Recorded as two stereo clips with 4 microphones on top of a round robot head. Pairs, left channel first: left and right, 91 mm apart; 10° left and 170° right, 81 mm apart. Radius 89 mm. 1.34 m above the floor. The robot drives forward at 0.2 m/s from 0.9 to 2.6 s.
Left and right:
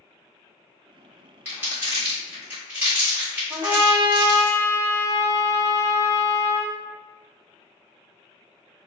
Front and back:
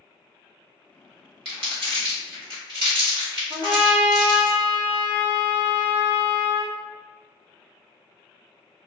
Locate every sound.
1.4 s crumpling: 160° right, 1.4 m; by 4.5 s 165° right, 1.6 m
3.5 s a trumpet: 155° right, 0.8 m